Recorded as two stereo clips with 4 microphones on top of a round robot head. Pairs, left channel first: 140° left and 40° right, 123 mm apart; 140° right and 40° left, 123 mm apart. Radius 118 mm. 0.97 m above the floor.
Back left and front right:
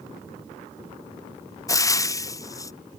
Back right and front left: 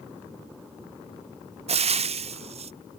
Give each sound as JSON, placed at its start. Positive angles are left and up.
{"t": 1.7, "sound": "frying", "azimuth_deg": 75}